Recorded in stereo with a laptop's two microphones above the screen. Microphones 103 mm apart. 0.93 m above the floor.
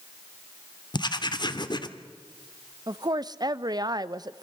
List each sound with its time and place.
0.9 s writing: 45° left (ahead or behind), 1.5 m
2.9 s a woman speaking: 45° right (ahead or behind), 0.7 m